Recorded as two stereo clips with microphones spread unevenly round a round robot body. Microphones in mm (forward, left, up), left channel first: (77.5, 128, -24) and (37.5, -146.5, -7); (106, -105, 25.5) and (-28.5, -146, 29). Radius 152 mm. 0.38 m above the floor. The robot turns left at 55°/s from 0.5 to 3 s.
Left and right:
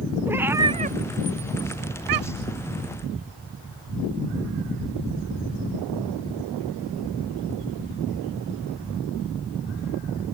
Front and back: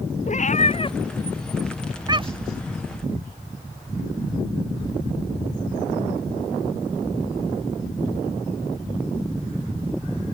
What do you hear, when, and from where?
0.3 s a cat meowing: 15° right; by 2.6 s 130° right